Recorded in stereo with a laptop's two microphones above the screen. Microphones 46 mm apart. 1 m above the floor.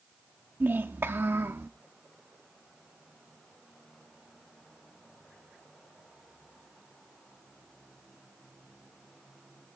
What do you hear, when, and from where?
0.6 s a child speaking: 50° right (ahead or behind), 0.8 m; by 1.7 s 70° right (ahead or behind), 1.0 m